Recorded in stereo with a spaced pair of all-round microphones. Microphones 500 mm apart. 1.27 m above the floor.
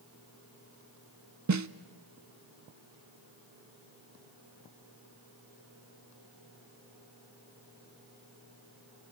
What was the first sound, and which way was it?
A snare drum, 35° right (ahead or behind).